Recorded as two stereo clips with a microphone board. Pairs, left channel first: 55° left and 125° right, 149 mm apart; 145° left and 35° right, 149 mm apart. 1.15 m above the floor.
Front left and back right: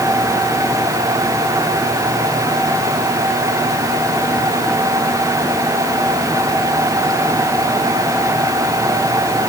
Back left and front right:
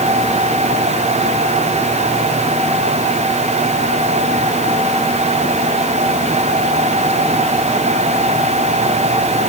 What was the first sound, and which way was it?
Only background noise.